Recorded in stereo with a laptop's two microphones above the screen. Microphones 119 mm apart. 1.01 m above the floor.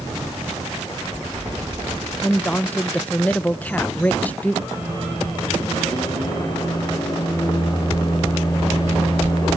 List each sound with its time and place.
2.2 s a woman speaking: 10° left (ahead or behind), 0.5 m
4.7 s a microwave: 35° left (ahead or behind), 4 m